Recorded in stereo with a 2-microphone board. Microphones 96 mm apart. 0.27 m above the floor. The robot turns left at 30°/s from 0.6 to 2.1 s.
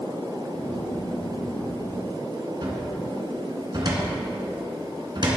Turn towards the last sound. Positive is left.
turn(degrees=-50)  # may be behind; listen again after turning